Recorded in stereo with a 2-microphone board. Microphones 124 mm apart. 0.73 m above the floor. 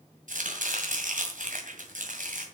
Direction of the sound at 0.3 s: 80° right.